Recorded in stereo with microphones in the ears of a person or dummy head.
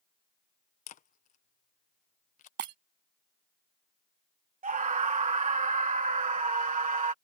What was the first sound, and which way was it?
A camera shutter, 35° left (ahead or behind).